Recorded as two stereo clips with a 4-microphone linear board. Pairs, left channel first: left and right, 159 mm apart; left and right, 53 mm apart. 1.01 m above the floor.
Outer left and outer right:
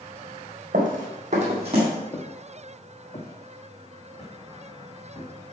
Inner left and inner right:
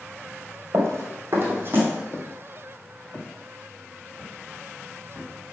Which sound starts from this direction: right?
Running footsteps, at 0.7 s.